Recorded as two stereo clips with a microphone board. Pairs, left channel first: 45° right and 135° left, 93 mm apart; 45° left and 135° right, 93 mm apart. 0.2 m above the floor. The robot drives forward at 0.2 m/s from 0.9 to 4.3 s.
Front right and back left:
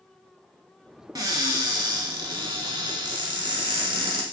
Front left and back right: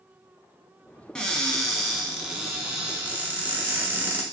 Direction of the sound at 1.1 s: 120° left.